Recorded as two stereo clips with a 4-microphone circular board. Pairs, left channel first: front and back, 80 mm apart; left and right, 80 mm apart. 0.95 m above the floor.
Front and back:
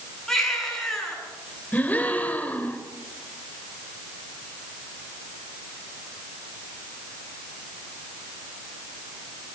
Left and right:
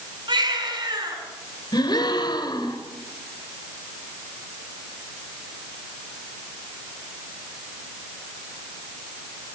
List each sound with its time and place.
0.3 s a baby crying: 85° right, 8 m
1.7 s a gasp: 70° left, 2.5 m